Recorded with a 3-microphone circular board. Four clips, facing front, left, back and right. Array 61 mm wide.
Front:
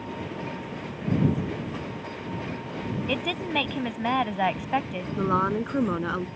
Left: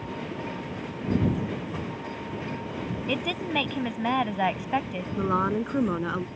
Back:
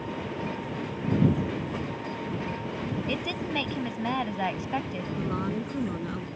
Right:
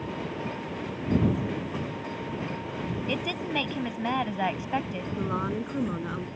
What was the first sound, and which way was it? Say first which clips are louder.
A woman speaking: left 3 dB, front 2 dB; 30° left.